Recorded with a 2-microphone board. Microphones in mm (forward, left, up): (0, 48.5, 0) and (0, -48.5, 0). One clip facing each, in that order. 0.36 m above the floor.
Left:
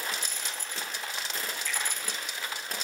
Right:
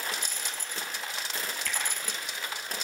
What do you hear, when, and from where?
1.7 s a finger snap: 70° right (ahead or behind), 2.5 m